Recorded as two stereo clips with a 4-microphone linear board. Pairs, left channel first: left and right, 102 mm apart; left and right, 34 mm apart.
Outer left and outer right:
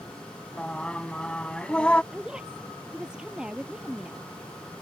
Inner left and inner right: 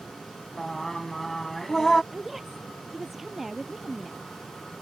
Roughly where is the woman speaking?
Centre.